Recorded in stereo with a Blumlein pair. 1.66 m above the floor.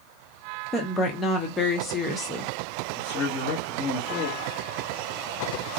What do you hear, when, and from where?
0.7 s a woman speaking: 10° left, 0.9 m
2.9 s a man speaking: 35° left, 1.1 m